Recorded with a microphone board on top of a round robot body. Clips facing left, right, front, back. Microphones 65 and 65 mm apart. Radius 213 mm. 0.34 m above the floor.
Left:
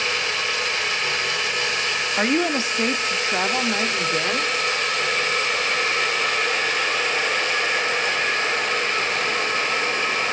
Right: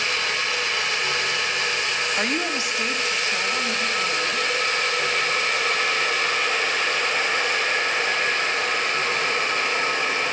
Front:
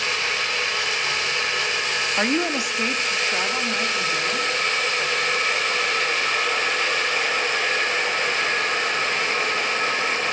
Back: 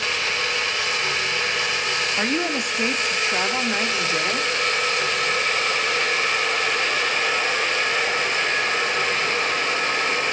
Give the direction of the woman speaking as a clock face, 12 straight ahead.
11 o'clock.